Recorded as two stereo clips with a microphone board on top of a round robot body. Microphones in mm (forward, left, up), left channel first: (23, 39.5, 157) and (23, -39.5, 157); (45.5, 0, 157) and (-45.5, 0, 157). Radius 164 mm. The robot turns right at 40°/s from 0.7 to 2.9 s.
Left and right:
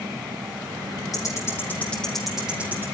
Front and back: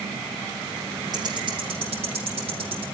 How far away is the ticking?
About 5 m.